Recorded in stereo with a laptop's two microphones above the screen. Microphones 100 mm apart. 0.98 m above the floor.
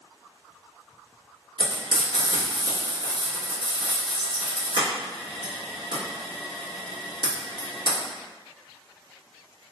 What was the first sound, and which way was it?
Frying, 50° right (ahead or behind).